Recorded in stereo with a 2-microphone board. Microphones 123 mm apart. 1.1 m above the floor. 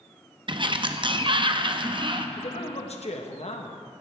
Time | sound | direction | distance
0.5 | a sliding door | 40° right (ahead or behind) | 0.7 m
2.4 | a man speaking | 60° left (ahead or behind) | 1.2 m